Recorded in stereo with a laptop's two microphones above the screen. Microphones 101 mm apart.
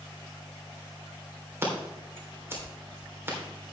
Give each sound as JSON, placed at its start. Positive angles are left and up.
{"t": 1.6, "sound": "scissors", "side_deg": -25, "distance_m": 3.5}